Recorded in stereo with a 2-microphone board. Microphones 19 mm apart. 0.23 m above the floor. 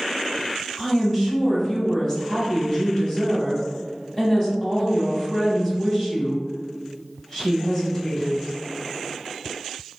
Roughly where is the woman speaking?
Left.